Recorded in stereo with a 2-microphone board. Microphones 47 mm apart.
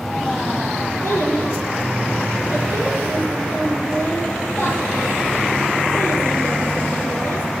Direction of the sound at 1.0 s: 55° left (ahead or behind).